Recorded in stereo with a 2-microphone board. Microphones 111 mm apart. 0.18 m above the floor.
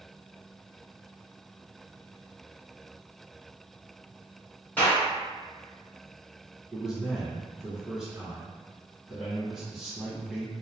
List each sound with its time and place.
4.8 s a clap: 15° left (ahead or behind), 1.6 m
6.7 s a man speaking: 5° right (ahead or behind), 1.0 m